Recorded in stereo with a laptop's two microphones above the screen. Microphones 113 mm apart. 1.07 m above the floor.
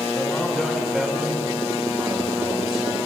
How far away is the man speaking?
About 1.9 m.